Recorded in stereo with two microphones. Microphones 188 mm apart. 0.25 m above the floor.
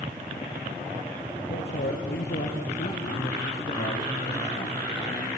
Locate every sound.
1.5 s a man speaking: 70° left (ahead or behind), 5.5 m